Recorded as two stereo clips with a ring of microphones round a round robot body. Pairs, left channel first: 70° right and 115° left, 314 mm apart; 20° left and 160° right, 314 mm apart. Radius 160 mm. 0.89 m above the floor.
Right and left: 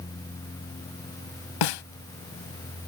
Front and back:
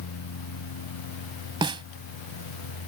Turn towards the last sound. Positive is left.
turn(degrees=-80)